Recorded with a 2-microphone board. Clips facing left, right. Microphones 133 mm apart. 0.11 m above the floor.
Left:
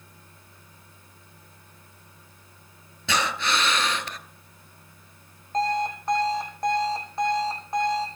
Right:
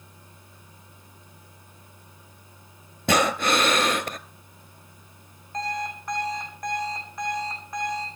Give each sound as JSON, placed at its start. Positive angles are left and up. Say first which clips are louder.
{"t": 3.1, "sound": "breathing", "louder": "right 5 dB", "side_deg": -50, "distance_m": 0.8}
{"t": 5.5, "sound": "an alarm clock", "louder": "left 6 dB", "side_deg": 30, "distance_m": 3.5}